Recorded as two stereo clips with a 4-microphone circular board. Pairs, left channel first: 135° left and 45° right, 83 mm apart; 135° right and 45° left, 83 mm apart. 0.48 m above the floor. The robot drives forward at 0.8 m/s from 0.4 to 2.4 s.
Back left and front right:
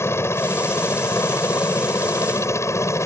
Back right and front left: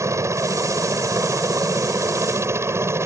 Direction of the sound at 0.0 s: 85° left.